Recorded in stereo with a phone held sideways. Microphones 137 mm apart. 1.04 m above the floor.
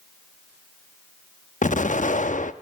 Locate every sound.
1.6 s an explosion: 70° left (ahead or behind), 0.9 m